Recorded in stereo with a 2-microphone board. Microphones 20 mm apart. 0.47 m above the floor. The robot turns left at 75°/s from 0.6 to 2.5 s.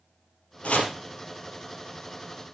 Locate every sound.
0.6 s chopping: 75° left (ahead or behind), 3 m; by 0.9 s 85° left, 3 m